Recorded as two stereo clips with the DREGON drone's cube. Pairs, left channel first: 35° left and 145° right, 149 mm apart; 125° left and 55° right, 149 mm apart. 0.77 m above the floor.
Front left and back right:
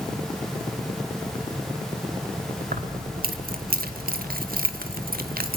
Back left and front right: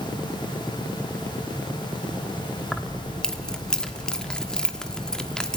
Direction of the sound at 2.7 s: 150° right.